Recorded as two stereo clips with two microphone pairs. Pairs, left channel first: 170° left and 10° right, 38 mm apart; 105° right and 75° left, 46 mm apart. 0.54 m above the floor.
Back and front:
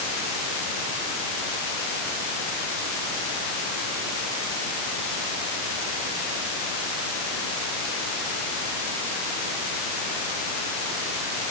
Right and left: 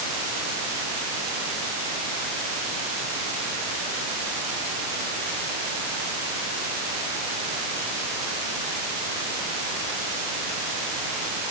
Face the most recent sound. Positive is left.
No sound to turn to.